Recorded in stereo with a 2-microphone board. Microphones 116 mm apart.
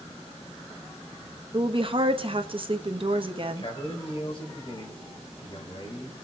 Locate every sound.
1.5 s a woman speaking: 50° right (ahead or behind), 1.1 m
3.5 s a man speaking: 45° left (ahead or behind), 4 m